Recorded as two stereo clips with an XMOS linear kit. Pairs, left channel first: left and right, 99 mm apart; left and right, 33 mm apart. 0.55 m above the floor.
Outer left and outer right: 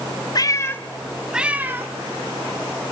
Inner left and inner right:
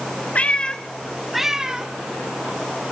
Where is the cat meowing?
40° left (ahead or behind), 1.0 m; by 1.9 s 25° right (ahead or behind), 1.4 m.